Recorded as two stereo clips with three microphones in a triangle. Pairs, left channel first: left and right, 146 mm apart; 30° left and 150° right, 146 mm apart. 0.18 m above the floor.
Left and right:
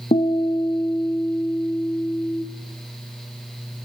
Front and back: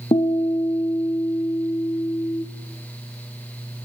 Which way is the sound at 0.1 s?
70° left.